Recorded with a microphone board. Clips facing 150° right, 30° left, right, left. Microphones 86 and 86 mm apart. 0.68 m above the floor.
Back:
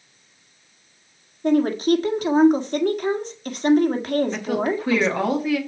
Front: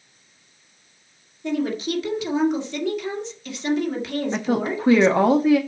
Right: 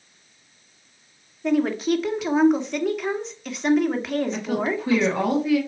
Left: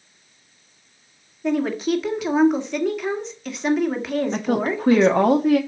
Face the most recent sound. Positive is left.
turn(degrees=80)